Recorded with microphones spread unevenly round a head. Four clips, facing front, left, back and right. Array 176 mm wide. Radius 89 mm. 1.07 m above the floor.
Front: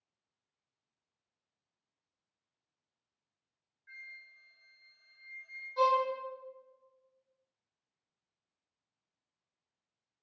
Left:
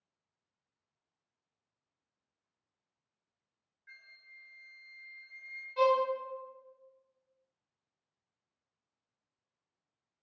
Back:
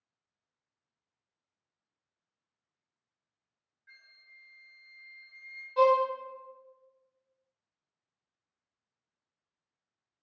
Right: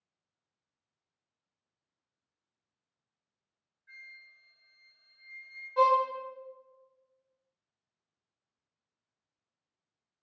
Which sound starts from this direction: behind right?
A violin, at 5.8 s.